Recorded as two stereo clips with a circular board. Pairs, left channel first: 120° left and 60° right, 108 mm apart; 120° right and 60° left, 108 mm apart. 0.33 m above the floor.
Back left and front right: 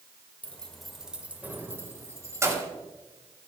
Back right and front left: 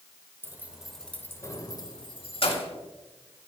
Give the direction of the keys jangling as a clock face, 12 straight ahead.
10 o'clock.